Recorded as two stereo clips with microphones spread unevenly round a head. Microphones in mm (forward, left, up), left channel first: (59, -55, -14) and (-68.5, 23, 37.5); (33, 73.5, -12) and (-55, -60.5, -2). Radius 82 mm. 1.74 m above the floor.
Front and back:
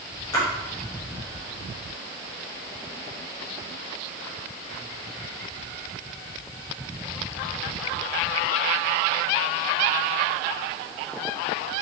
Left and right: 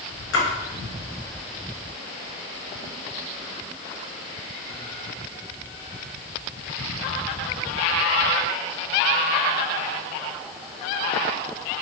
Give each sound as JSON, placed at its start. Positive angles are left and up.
{"t": 0.3, "sound": "a splash", "azimuth_deg": 45, "distance_m": 1.1}